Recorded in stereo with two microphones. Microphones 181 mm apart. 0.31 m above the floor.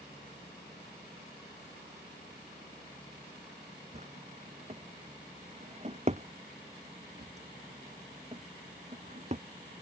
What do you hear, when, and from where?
3.9 s a drawer: 40° right (ahead or behind)